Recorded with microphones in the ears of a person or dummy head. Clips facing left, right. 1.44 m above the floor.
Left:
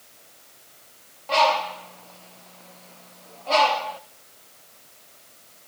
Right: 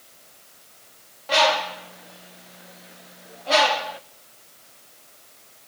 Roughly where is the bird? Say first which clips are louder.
Even; centre.